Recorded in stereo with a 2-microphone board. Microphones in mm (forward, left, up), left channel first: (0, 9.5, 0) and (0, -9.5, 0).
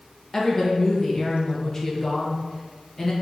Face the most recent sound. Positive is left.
turn(degrees=30)  # may be behind; listen again after turning